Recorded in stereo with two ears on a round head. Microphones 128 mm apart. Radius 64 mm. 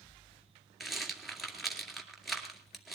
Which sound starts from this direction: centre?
A rattle, at 0.8 s.